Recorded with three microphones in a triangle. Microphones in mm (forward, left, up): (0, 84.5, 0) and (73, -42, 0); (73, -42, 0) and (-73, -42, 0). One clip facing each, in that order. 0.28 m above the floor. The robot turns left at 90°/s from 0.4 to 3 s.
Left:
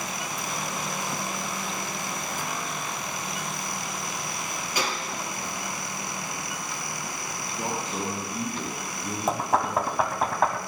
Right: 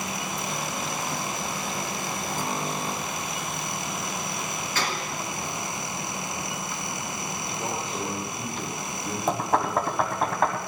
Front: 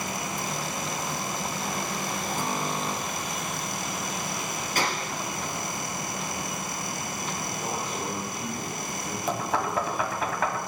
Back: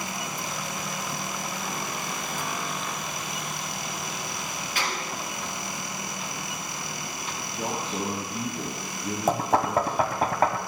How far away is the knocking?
About 1.1 m.